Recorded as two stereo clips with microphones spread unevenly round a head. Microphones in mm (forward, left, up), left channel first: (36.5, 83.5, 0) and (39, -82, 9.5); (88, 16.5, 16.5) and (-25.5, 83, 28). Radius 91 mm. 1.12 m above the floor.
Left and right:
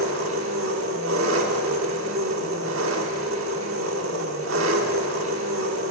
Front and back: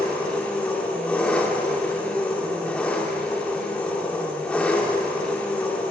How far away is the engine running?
About 2.5 m.